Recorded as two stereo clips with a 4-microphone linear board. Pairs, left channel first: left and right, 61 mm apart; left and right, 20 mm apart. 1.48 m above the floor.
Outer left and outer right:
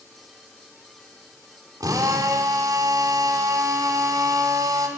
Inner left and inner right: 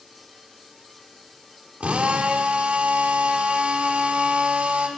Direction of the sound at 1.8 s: 85° right.